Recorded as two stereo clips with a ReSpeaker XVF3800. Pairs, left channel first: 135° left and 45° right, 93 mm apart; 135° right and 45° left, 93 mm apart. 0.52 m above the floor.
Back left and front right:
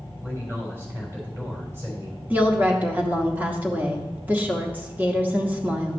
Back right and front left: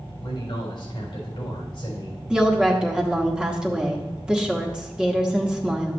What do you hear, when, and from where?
0.2 s a man speaking: 110° right, 3.5 m
2.3 s a woman speaking: 20° right, 1.0 m